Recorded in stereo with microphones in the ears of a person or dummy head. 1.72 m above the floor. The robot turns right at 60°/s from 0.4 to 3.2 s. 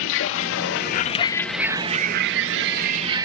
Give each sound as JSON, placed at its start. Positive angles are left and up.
{"t": 0.0, "sound": "a vehicle", "side_deg": 75}